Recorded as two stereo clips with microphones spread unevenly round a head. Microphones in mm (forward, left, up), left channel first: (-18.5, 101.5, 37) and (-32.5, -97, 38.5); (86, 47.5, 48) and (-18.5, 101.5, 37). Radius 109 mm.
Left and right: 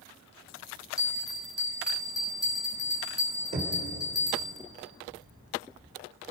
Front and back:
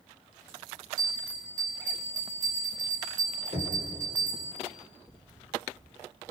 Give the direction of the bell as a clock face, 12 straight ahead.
7 o'clock.